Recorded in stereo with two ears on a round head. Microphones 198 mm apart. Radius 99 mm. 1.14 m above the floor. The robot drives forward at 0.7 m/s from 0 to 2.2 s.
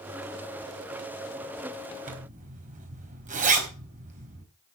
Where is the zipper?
40° right (ahead or behind), 4 m; by 4.4 s 35° right (ahead or behind), 4 m.